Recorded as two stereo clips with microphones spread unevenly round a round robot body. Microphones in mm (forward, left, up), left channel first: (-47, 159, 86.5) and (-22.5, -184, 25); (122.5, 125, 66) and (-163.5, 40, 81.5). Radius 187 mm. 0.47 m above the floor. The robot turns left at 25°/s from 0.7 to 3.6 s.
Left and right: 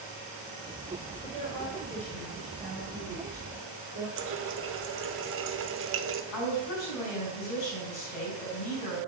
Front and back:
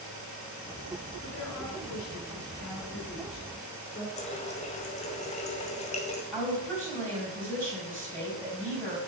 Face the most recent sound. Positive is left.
turn(degrees=100)